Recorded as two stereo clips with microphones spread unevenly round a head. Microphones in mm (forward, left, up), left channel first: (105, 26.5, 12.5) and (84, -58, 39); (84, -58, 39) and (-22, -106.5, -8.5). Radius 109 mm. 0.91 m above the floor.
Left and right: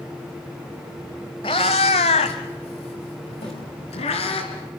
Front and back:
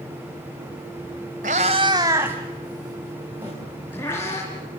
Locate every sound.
1.4 s a cat meowing: 145° left, 1.0 m; by 4.4 s 100° left, 3.5 m
3.4 s a snare drum: 130° left, 5.5 m